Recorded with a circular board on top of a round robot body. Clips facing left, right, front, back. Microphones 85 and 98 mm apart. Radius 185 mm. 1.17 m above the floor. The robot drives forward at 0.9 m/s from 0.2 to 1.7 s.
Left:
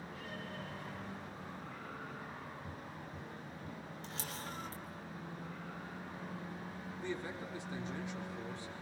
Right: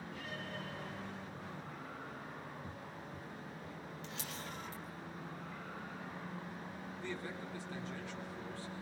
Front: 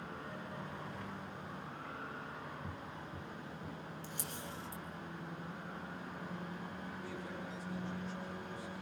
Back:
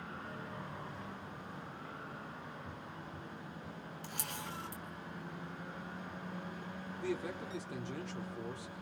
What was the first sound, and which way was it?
Footsteps, 5° right.